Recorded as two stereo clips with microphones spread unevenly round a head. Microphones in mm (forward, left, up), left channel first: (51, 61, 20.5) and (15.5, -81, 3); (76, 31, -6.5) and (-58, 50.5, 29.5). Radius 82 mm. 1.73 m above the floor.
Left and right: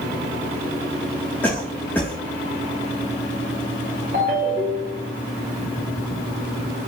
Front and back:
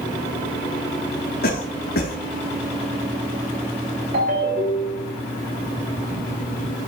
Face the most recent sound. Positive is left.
turn(degrees=-155)